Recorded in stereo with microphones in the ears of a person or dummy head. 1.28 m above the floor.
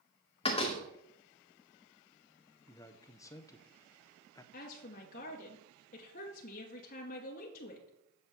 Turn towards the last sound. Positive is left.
turn(degrees=40)  # may be behind; listen again after turning